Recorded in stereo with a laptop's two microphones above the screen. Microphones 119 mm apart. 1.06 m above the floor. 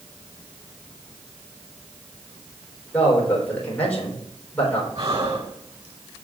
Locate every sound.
2.9 s a man speaking: 10° left (ahead or behind), 3.5 m
5.0 s breathing: 65° right (ahead or behind), 3.5 m